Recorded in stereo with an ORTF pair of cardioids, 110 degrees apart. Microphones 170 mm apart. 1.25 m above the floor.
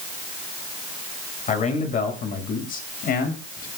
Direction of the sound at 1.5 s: 45° left.